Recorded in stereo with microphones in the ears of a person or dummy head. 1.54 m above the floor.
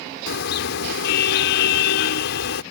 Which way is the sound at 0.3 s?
65° left (ahead or behind).